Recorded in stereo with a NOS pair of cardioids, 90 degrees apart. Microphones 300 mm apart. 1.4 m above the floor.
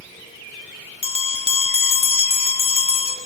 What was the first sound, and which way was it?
A bell, 20° left.